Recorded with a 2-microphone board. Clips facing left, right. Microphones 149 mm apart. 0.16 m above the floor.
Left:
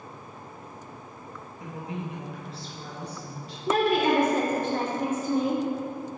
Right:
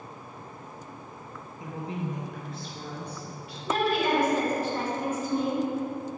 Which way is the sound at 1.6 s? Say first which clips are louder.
Right 2 dB; 20° right (ahead or behind).